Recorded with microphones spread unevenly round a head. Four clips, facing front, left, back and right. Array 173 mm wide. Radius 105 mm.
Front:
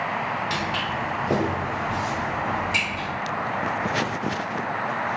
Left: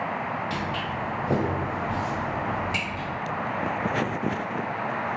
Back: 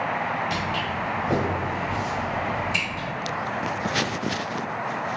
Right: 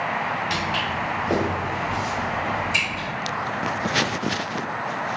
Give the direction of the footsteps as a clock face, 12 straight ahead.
6 o'clock.